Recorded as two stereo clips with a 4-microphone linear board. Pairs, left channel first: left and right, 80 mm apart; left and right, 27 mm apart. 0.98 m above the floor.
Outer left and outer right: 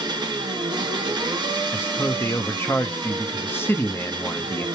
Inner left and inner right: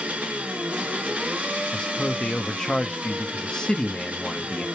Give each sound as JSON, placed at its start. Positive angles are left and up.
{"t": 0.0, "sound": "an engine running", "side_deg": -70, "distance_m": 0.8}
{"t": 1.7, "sound": "a man speaking", "side_deg": 30, "distance_m": 0.6}